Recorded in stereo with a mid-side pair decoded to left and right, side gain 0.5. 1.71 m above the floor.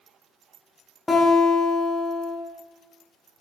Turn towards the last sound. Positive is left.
turn(degrees=20)